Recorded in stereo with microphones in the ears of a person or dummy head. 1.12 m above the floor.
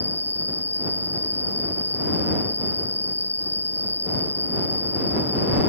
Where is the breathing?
I don't hear breathing.